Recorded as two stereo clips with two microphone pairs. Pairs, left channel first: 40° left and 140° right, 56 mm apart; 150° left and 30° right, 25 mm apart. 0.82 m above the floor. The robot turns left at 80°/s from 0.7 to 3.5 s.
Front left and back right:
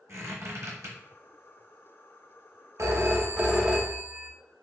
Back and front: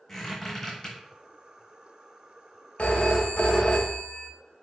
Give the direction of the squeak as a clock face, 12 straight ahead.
4 o'clock.